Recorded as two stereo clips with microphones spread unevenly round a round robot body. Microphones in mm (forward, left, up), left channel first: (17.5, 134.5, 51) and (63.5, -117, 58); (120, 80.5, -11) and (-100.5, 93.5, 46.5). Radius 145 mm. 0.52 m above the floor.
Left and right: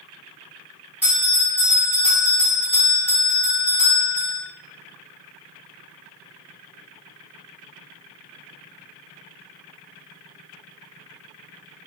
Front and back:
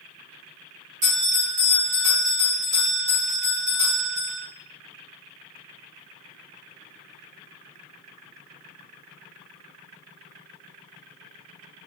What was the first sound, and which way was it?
A bell, 165° right.